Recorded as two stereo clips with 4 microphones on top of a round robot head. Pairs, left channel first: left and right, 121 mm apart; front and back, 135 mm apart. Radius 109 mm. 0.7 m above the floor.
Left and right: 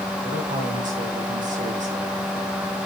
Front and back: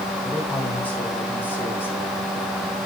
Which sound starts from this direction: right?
A man speaking, at 0.2 s.